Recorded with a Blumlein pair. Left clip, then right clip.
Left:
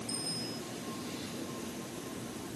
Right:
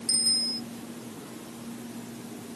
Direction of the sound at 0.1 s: 55° right.